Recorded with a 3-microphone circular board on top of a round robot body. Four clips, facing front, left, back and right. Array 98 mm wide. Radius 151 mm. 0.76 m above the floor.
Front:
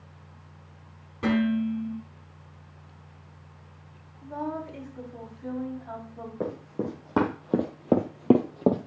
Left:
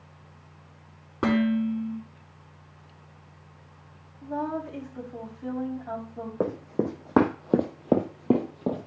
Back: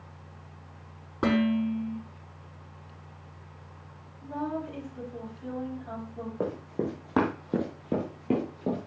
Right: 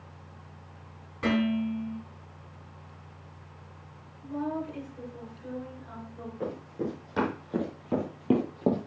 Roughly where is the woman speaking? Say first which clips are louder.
Left 2 dB, even; left.